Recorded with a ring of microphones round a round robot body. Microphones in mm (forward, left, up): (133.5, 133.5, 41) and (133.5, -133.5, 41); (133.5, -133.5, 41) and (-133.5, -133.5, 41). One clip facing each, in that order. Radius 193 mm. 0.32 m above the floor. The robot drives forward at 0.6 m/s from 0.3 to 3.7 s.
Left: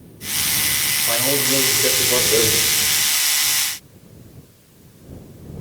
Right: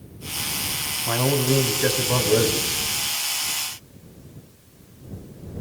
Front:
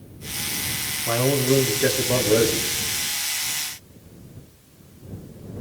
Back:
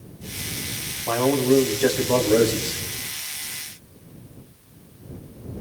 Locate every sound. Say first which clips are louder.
1.1 s a man speaking: right 2 dB, back 2 dB; 65° right, 3 m; by 2.8 s 90° right, 3 m